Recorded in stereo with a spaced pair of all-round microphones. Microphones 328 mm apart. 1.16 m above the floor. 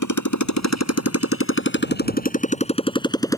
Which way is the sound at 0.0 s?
65° left (ahead or behind).